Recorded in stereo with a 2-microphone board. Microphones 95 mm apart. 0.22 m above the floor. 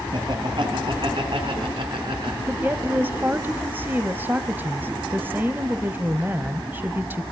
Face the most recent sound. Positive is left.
turn(degrees=-20)  # may be behind; listen again after turning